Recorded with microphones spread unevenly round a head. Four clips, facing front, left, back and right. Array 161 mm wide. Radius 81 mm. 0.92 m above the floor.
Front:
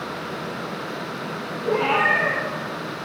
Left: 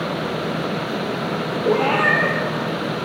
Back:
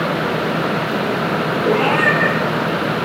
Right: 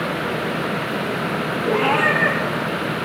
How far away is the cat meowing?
About 9 m.